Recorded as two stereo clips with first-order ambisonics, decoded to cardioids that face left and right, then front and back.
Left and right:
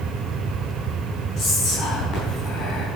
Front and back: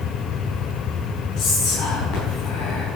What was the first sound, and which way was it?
Whispering, 35° left.